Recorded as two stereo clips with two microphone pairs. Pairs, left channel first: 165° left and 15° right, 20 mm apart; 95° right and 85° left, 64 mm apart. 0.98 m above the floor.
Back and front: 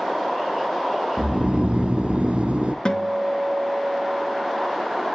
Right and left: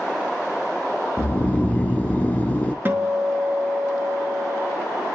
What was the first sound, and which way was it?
Snoring, 35° right.